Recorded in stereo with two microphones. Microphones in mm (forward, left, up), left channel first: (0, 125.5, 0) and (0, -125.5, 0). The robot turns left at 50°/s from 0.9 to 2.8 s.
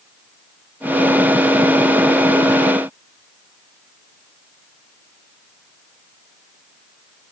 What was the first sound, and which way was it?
Only background noise.